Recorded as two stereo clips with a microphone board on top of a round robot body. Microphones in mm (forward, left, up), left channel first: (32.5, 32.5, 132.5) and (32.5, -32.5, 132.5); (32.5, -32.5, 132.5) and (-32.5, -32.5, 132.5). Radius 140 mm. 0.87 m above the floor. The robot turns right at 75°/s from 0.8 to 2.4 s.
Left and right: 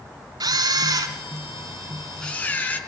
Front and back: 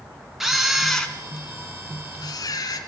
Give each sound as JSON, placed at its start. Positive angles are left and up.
{"t": 0.4, "sound": "a camera shutter", "azimuth_deg": -95, "distance_m": 2.5}